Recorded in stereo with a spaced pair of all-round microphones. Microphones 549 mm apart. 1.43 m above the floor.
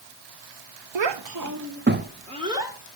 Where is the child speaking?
60° right (ahead or behind), 0.5 m; by 2.8 s 5° right (ahead or behind), 1.1 m.